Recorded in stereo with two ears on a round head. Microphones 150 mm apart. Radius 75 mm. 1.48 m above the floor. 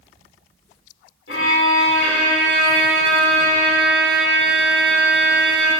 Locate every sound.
1.3 s a violin: 70° left (ahead or behind), 0.9 m